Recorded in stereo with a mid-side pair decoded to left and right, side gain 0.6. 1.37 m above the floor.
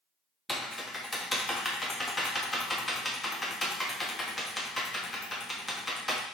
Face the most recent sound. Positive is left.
turn(degrees=15)